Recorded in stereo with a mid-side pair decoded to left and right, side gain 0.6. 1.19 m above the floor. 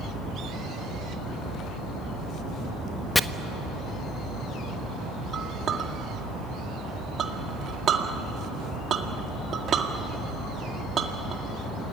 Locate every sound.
3.1 s chopping: 10° left, 0.8 m
5.3 s a clink: 40° right, 2 m